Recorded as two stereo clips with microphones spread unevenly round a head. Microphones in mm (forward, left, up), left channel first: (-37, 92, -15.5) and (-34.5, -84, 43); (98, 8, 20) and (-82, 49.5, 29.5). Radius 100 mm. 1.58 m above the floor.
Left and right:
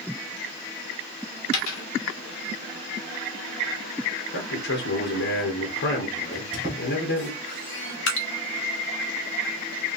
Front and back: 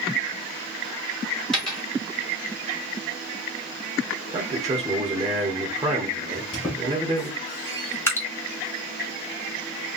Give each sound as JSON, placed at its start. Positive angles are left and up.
{"t": 1.5, "sound": "a dropped coin", "azimuth_deg": 75, "distance_m": 1.5}
{"t": 4.3, "sound": "a man speaking", "azimuth_deg": 95, "distance_m": 1.1}
{"t": 6.3, "sound": "a squeak", "azimuth_deg": -75, "distance_m": 1.9}
{"t": 8.1, "sound": "dripping", "azimuth_deg": 65, "distance_m": 1.0}